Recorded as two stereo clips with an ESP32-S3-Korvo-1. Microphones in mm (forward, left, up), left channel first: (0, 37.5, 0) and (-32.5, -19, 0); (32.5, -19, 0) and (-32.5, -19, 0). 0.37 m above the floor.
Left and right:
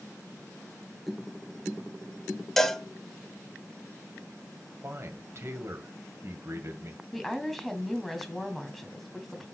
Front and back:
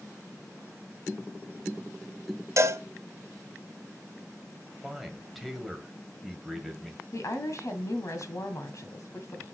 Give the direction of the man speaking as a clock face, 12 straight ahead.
3 o'clock.